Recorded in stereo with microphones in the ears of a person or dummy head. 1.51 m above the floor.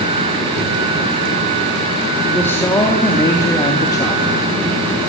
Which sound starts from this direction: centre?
A man speaking, at 2.3 s.